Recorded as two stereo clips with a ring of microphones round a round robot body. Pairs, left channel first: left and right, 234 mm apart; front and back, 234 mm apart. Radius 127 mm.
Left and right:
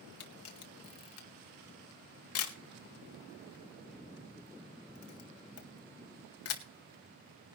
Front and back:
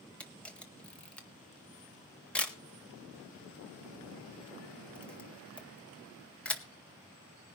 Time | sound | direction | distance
0.2 | a camera shutter | 85° left | 1.9 m